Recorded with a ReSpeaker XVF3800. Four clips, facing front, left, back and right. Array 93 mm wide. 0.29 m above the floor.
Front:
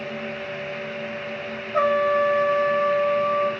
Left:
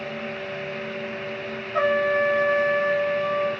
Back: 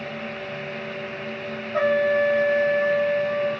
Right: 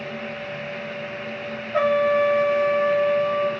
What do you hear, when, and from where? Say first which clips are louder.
1.7 s a trumpet: right 2 dB, even; 90° right, 0.9 m